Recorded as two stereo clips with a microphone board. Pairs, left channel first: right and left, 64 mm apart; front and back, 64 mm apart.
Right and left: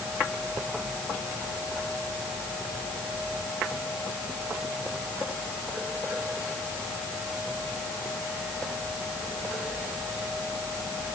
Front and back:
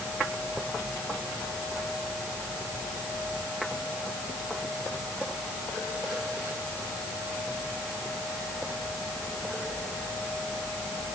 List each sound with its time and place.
Only background noise.